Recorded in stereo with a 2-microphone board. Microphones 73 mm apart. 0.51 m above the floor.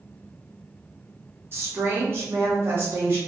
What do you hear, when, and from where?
1.5 s a woman speaking: 35° right (ahead or behind), 0.8 m